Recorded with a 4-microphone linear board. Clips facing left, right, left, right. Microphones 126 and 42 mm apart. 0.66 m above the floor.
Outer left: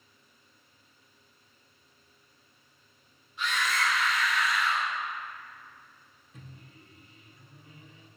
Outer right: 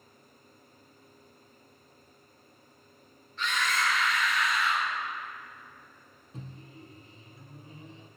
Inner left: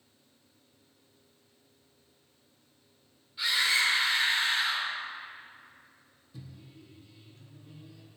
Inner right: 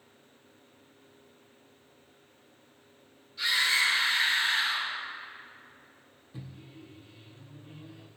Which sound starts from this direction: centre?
A scream, at 3.4 s.